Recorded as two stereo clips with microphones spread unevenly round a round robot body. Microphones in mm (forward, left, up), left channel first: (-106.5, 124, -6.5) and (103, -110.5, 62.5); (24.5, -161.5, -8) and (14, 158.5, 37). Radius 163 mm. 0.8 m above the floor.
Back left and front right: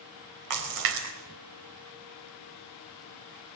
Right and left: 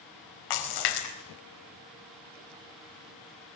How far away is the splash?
About 4 m.